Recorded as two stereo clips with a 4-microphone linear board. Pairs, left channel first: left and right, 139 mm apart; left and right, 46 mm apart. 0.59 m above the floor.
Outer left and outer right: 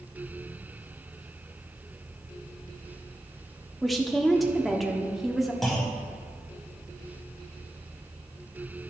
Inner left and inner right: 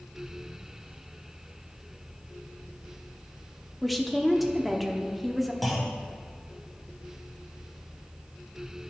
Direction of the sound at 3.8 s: Centre (ahead or behind).